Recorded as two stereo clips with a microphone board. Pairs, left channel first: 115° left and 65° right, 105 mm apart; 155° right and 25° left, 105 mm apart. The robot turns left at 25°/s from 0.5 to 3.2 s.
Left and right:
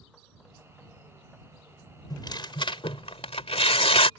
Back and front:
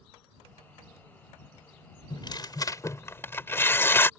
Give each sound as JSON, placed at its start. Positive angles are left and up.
{"t": 2.1, "sound": "tearing paper", "azimuth_deg": 165}